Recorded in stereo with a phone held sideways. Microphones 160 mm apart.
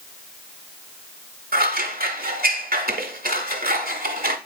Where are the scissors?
65° right (ahead or behind), 1.1 m.